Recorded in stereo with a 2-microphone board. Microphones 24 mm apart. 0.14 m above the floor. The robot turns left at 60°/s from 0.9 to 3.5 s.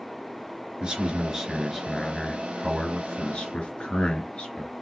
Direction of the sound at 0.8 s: 125° right.